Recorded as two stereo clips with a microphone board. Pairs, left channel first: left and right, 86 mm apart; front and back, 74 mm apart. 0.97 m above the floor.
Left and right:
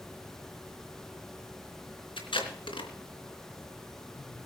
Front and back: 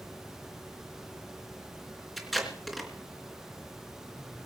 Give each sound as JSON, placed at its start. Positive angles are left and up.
{"t": 2.2, "sound": "tape being pulled", "azimuth_deg": 90, "distance_m": 3.0}